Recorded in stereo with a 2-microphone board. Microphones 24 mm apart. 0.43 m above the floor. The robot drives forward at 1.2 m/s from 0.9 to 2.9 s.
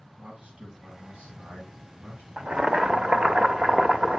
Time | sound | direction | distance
0.2 | a man speaking | 70° right (ahead or behind) | 6.5 m
2.4 | boiling | 45° right (ahead or behind) | 0.8 m